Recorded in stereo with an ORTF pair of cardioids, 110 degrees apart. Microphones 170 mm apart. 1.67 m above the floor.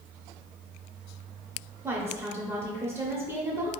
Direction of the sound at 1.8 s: 15° right.